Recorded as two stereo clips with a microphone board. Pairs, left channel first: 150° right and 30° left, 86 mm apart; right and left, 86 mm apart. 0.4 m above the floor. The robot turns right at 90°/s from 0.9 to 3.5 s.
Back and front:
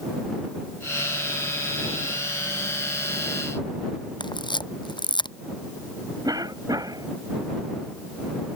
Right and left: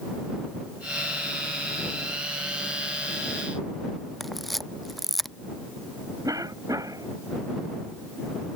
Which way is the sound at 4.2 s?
Straight behind.